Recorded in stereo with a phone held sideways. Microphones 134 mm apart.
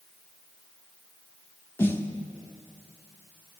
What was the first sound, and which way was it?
A snare drum, 20° left (ahead or behind).